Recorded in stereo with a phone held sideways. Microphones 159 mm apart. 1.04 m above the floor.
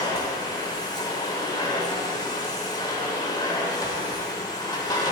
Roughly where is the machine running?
Left.